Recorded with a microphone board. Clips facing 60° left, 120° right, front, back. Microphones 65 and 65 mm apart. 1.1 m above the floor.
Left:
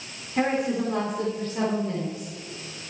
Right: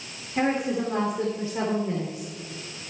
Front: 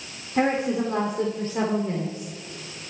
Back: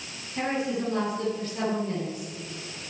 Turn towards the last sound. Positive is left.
turn(degrees=-50)